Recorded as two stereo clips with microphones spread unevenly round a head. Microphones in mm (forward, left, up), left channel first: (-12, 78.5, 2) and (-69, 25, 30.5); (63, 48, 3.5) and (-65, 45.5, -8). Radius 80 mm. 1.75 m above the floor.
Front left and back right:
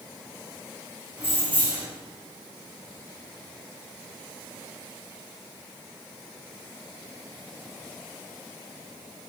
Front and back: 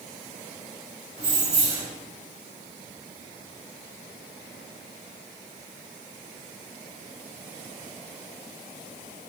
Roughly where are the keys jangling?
Behind.